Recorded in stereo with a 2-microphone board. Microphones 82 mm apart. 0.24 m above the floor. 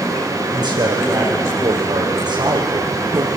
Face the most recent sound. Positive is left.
turn(degrees=-65)  # may be behind; listen again after turning